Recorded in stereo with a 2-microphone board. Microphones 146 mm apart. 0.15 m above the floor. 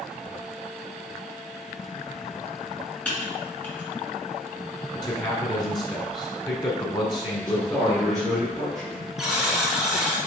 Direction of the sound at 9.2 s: 5° right (ahead or behind).